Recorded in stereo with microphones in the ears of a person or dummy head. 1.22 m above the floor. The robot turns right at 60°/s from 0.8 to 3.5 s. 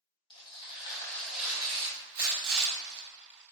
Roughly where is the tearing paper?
Behind left.